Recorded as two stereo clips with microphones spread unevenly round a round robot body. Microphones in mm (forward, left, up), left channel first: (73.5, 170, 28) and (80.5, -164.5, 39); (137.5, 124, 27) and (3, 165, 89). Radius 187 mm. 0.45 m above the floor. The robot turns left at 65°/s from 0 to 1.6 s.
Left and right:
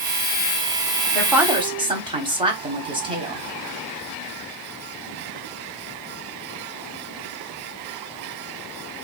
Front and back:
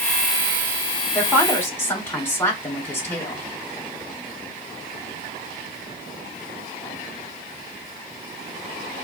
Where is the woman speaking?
10° left, 1.1 m; by 3.4 s 20° right, 1.1 m.